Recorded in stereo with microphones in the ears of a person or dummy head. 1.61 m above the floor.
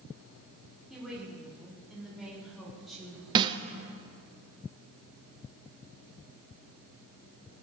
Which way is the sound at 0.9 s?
Centre (ahead or behind).